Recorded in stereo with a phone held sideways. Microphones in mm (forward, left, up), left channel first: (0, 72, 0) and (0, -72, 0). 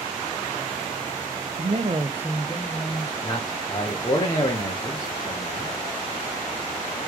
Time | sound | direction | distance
1.6 | a man speaking | 55° right (ahead or behind) | 0.7 m
3.2 | a man speaking | 25° left (ahead or behind) | 0.9 m